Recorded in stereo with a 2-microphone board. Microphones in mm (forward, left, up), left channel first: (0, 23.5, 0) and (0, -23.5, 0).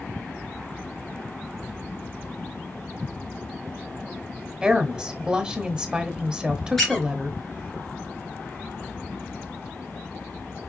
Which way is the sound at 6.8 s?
5° left (ahead or behind).